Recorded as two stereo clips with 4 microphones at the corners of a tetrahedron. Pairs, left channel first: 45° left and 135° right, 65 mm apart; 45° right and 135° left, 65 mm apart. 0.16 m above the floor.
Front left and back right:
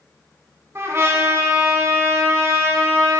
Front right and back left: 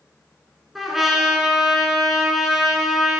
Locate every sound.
0.8 s a trumpet: 140° right, 0.8 m